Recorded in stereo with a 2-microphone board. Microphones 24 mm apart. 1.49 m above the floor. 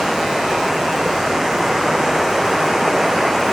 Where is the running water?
20° right (ahead or behind).